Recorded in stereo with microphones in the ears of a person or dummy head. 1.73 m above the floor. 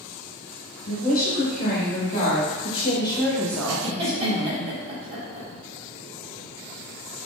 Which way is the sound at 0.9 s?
50° left (ahead or behind).